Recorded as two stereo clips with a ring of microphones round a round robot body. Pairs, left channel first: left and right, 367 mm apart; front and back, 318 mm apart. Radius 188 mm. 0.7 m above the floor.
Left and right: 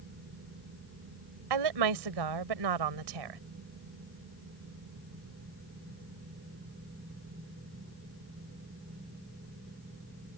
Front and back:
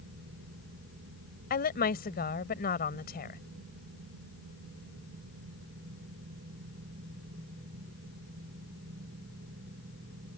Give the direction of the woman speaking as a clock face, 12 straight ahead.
2 o'clock.